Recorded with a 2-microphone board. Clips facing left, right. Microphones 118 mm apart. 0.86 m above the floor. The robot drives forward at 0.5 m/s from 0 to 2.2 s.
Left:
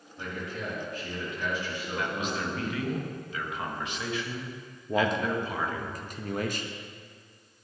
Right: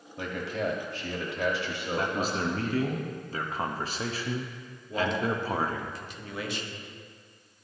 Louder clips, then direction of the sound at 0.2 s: Right 5 dB; 70° right (ahead or behind).